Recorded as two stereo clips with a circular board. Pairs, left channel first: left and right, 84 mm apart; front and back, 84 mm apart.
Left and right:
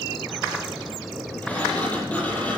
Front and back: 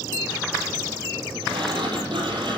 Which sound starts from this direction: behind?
A sliding door, at 1.4 s.